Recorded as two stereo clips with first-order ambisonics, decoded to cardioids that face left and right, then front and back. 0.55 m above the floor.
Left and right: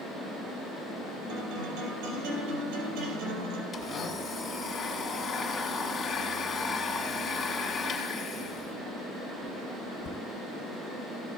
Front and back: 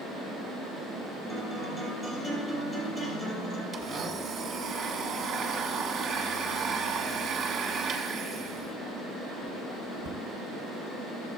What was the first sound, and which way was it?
A guitar, 75° right.